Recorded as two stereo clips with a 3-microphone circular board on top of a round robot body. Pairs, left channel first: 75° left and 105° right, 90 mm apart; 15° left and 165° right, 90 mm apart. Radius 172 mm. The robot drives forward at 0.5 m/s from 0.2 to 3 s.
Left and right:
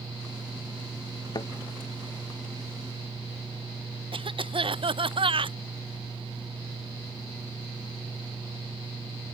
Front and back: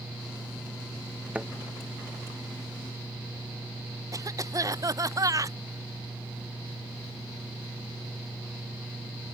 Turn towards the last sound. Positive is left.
turn(degrees=-115)